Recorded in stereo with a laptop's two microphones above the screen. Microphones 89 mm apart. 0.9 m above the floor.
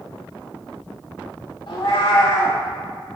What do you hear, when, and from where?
1.7 s a cat meowing: 65° left (ahead or behind), 1.5 m